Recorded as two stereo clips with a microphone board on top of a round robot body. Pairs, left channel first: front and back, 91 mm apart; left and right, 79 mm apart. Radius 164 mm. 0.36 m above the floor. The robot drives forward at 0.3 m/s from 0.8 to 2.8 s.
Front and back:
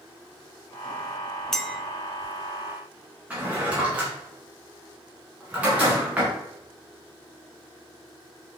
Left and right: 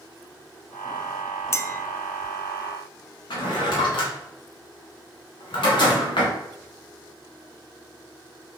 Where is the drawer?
105° left, 1.4 m.